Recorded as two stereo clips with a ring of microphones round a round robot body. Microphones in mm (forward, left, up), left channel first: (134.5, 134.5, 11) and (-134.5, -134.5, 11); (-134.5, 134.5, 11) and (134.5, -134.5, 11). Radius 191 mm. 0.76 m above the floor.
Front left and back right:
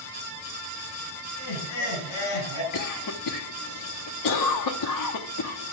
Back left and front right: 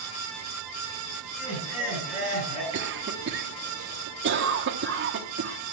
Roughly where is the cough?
Ahead.